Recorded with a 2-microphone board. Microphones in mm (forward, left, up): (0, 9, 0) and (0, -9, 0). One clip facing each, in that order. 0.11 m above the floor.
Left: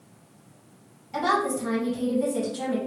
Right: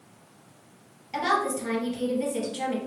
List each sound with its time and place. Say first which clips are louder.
1.1 s a woman speaking: left 1 dB; 35° right (ahead or behind), 2.0 m